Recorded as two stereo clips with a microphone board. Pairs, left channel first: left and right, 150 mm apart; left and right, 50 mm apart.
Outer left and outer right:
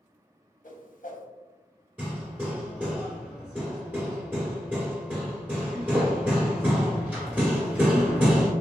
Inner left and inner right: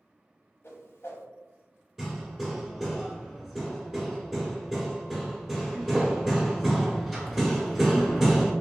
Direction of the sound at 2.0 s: 10° right (ahead or behind).